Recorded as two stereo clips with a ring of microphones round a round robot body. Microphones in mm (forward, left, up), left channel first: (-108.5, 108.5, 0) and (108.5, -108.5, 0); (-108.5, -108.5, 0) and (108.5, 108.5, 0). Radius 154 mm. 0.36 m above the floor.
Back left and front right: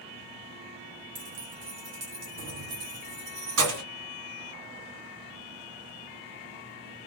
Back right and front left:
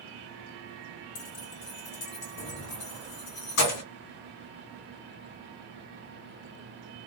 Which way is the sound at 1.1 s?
90° right.